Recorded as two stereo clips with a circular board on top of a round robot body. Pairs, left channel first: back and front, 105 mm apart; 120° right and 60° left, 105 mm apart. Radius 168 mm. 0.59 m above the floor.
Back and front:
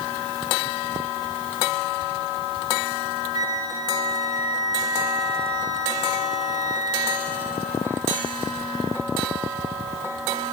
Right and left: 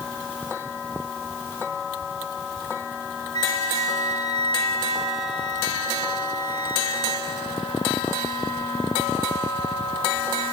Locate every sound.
3.3 s a flute: 55° left, 7 m